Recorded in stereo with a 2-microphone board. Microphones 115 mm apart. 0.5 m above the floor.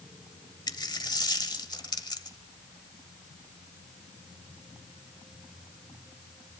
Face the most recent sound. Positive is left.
turn(degrees=40)  # may be behind; listen again after turning